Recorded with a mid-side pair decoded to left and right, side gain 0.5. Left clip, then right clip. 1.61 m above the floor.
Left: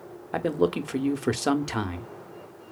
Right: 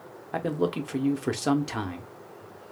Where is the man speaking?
20° left, 0.7 m.